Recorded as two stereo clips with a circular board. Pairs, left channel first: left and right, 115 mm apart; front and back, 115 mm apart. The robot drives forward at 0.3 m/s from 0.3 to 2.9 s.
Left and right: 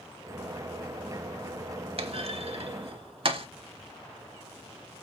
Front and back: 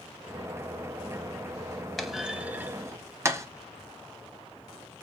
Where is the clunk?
90° right, 0.6 m; by 3.5 s 120° right, 0.7 m.